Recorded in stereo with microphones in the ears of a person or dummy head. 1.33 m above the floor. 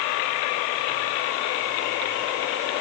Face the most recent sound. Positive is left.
No sound to turn to.